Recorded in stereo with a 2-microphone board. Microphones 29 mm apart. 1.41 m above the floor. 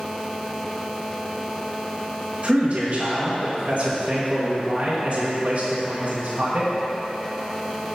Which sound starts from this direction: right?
A man speaking, at 2.4 s.